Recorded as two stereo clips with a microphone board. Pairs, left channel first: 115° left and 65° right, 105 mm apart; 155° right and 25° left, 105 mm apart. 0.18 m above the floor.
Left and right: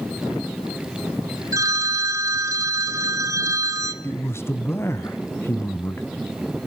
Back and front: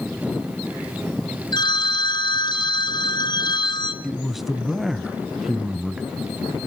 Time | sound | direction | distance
1.5 | a phone ringing | 120° right | 1.5 m
4.0 | a man speaking | 110° left | 1.1 m